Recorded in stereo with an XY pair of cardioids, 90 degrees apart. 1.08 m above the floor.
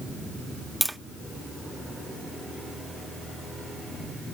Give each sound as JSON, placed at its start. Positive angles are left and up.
{"t": 0.8, "sound": "tapping", "azimuth_deg": -5, "distance_m": 0.6}